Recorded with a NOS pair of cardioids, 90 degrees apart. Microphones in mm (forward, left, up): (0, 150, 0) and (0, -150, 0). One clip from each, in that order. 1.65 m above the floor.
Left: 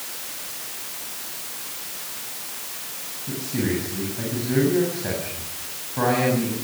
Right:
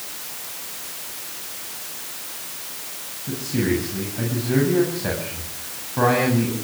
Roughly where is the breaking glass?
I don't hear breaking glass.